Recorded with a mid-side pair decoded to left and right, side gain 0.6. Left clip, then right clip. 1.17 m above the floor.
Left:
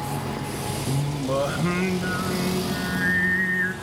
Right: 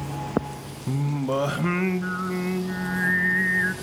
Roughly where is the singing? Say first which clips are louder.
Right 3 dB; ahead.